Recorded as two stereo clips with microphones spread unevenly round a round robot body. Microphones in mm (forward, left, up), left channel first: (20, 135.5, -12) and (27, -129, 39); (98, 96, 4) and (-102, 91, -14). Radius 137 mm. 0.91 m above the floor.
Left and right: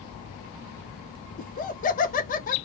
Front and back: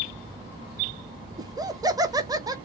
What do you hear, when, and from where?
1.4 s laughter: 120° left, 0.8 m